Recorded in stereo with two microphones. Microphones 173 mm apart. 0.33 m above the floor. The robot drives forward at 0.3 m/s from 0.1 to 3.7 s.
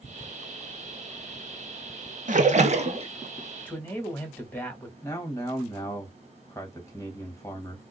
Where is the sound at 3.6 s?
10° left (ahead or behind), 1.6 m.